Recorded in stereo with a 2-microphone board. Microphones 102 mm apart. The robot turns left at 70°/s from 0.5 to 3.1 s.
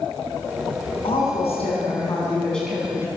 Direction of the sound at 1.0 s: 115° left.